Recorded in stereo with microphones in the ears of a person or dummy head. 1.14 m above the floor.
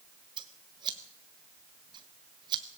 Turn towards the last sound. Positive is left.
turn(degrees=-25)  # may be behind; listen again after turning